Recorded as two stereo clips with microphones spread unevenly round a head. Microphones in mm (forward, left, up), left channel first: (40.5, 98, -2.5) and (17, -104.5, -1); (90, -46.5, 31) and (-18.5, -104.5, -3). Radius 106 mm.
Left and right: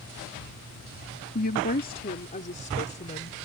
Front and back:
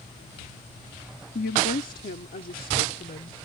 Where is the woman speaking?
40° left; by 3.4 s 30° left.